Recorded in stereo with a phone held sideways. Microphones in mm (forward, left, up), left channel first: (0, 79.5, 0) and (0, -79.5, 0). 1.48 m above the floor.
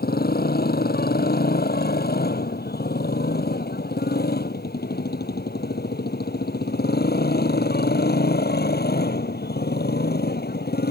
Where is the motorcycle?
75° left (ahead or behind); by 10.9 s 90° left.